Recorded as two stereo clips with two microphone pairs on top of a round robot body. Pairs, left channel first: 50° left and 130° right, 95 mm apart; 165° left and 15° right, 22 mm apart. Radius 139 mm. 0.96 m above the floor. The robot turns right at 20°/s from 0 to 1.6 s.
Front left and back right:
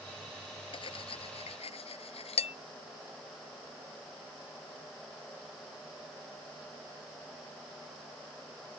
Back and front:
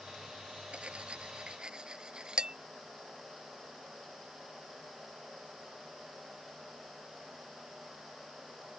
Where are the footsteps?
I don't hear footsteps.